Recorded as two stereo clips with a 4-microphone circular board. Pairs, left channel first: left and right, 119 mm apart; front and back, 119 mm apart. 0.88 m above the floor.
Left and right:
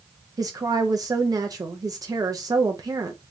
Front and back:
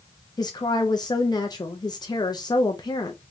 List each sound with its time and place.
0.4 s a woman speaking: 40° right, 0.5 m